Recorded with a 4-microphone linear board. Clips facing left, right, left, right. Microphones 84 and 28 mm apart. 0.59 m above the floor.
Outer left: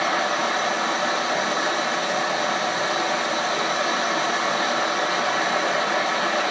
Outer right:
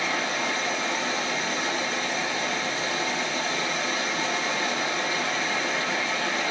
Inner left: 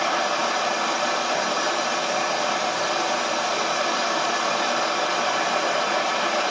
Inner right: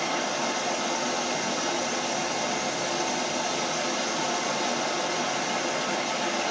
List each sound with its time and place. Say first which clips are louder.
0.0 s running water: outer left 5 dB, inner left 5 dB; 70° left (ahead or behind), 1.6 m